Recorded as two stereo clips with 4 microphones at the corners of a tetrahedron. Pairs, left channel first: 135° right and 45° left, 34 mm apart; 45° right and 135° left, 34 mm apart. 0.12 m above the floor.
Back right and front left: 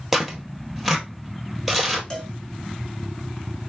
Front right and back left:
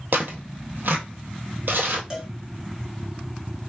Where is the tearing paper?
130° left, 1.6 m.